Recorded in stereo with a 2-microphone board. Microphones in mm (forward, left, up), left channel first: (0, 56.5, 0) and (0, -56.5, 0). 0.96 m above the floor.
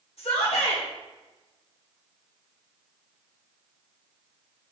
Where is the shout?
70° left (ahead or behind), 3.5 m.